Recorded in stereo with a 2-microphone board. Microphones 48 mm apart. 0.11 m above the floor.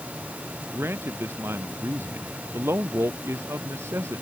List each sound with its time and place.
0.7 s a man speaking: 60° right (ahead or behind); by 4.2 s 75° right (ahead or behind)